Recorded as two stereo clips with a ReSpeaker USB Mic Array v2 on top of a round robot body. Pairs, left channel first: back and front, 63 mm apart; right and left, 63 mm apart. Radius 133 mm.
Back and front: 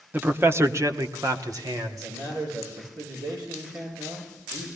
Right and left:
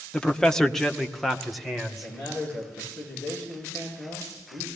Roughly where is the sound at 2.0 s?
Ahead.